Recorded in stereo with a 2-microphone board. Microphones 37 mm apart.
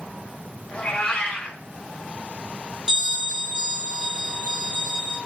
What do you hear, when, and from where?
0.7 s a cat meowing: 35° left (ahead or behind), 1.3 m
2.9 s a bell: 30° right (ahead or behind), 1.1 m